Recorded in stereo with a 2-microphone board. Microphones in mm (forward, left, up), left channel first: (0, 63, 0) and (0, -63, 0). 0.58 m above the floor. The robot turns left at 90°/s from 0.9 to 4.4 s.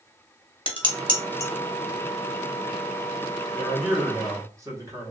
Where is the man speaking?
35° left, 0.9 m; by 5.1 s 45° right, 0.9 m.